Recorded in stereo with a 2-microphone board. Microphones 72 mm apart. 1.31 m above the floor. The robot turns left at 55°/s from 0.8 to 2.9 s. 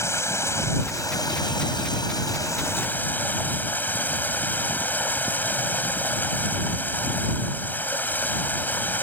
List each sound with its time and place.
0.0 s running water: 140° left; by 9.0 s 25° left